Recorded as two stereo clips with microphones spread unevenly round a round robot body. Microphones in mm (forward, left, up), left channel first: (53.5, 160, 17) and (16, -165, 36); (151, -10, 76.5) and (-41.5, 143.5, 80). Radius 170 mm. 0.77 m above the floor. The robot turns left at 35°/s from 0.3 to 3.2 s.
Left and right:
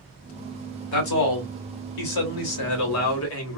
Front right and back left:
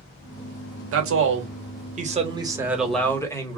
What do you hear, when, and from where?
0.9 s a man speaking: 120° left, 1.3 m; by 3.6 s 40° left, 1.3 m